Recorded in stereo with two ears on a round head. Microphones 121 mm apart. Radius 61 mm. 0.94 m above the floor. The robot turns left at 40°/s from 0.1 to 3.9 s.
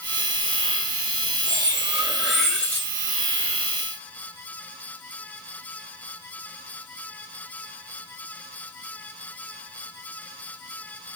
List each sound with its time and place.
1.5 s cutlery clinking: 145° right, 1.0 m; by 2.9 s 160° left, 1.0 m